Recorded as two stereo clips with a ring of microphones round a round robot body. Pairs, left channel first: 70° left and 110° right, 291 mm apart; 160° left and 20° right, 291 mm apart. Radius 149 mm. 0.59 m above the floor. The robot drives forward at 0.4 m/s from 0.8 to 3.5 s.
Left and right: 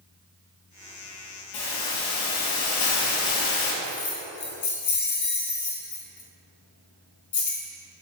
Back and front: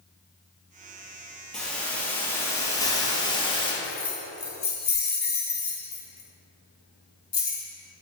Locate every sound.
1.5 s a hiss: 70° left, 3 m; by 3.7 s 85° left, 3 m
3.8 s keys jangling: 100° left, 4 m